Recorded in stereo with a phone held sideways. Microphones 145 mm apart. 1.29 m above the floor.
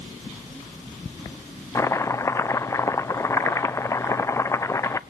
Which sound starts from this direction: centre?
Chopping, at 1.8 s.